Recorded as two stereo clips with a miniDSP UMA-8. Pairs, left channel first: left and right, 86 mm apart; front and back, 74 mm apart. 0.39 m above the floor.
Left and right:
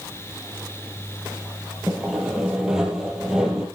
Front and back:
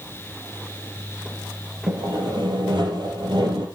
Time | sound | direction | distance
1.9 | sawing | 175° right | 4.5 m